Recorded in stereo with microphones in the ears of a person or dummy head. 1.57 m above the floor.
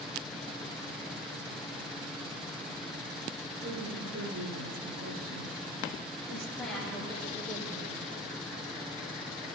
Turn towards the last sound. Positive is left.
turn(degrees=0)  # may be behind; listen again after turning